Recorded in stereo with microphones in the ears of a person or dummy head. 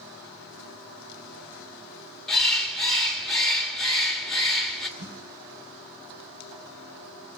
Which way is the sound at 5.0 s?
50° right (ahead or behind).